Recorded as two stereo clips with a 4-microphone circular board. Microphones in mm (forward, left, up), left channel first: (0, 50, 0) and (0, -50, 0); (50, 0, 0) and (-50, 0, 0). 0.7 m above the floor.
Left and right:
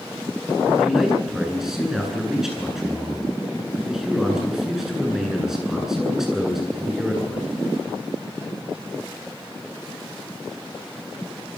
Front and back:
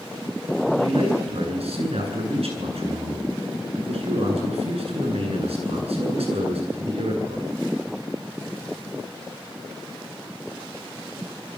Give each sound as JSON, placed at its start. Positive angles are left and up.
{"t": 0.8, "sound": "a man speaking", "azimuth_deg": -175, "distance_m": 9.5}